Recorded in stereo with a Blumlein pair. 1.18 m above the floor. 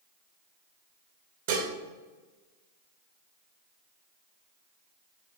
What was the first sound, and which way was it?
Dishes clattering, 55° right.